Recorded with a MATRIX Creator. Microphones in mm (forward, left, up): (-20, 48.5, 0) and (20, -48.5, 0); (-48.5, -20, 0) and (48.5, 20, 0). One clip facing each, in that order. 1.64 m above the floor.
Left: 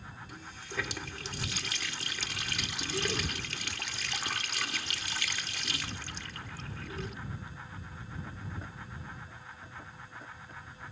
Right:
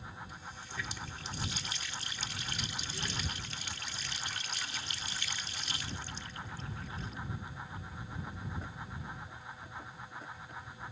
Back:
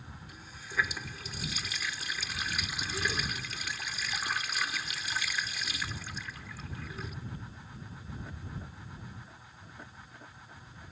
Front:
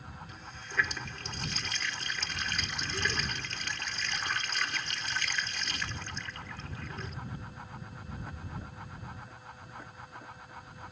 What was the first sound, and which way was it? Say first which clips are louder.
A running tap: left 3 dB, even; 120° left.